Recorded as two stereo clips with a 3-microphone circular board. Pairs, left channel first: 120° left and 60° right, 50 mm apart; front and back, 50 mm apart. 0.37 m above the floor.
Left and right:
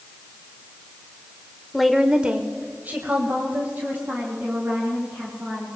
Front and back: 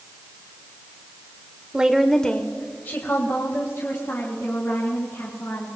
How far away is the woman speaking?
About 1.0 m.